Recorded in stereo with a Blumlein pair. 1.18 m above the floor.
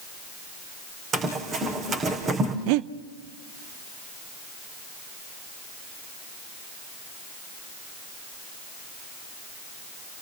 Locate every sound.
1.1 s running footsteps: 25° right, 3.5 m
2.7 s breathing: 45° right, 0.6 m